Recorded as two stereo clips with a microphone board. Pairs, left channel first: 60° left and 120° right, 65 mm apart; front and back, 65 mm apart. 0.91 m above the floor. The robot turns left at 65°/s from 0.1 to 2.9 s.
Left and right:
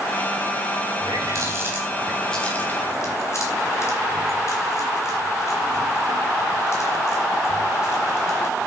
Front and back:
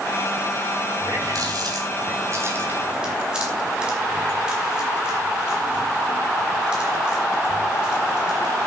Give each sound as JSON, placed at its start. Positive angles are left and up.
{"t": 1.0, "sound": "a running tap", "azimuth_deg": -130, "distance_m": 5.5}